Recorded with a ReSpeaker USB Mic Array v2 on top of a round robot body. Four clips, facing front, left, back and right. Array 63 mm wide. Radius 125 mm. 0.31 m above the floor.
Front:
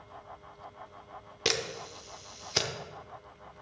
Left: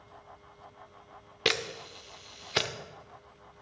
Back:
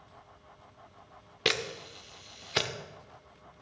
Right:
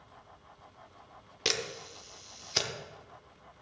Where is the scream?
I don't hear a scream.